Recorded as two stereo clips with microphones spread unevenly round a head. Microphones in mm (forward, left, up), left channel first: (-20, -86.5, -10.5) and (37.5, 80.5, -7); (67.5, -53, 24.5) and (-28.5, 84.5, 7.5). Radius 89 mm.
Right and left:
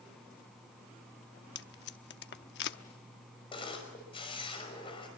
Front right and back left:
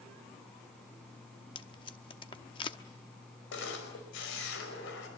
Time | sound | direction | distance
1.6 | tape being pulled | 115° right | 1.0 m
3.5 | a camera shutter | 45° right | 5 m